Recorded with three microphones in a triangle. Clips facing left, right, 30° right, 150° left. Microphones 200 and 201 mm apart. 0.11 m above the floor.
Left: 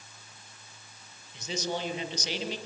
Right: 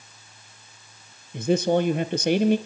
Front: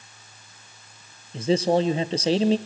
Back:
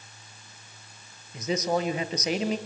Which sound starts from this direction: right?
A man speaking, at 1.3 s.